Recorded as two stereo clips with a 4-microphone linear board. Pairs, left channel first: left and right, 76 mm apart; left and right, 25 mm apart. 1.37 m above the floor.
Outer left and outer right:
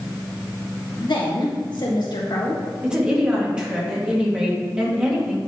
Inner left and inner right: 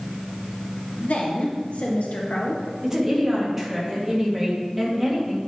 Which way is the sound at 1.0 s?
75° left (ahead or behind).